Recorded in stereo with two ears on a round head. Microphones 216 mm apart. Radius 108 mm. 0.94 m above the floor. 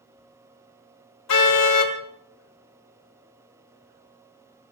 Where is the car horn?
80° left, 2 m.